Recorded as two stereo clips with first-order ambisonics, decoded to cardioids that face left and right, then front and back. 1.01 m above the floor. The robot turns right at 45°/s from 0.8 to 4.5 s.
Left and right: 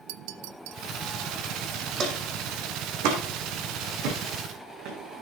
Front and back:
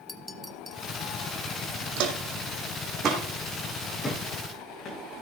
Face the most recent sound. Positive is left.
turn(degrees=-50)